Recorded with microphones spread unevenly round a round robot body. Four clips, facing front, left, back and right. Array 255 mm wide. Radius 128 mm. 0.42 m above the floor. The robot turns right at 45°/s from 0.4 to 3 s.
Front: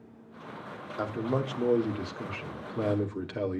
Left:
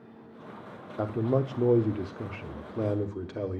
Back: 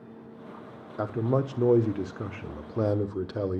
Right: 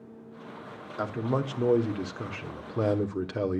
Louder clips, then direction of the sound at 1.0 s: Left 2 dB, back 3 dB; 130° left.